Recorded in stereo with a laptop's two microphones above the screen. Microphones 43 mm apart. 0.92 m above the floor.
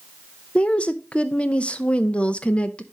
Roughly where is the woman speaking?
Left.